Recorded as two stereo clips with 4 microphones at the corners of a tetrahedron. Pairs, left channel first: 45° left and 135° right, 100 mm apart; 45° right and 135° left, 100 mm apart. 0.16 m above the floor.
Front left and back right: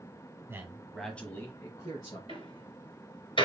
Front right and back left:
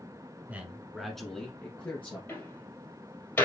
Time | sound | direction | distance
0.5 | a man speaking | 165° right | 1.3 m
2.3 | a door slam | 25° left | 3 m